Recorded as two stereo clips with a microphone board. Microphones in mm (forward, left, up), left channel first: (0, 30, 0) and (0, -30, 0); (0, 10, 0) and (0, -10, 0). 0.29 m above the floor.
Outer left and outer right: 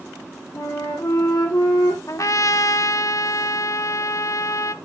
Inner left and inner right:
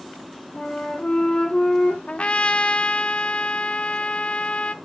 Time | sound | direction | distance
0.5 | a flute | 75° left (ahead or behind) | 4.5 m
2.1 | a trumpet | 60° left (ahead or behind) | 0.5 m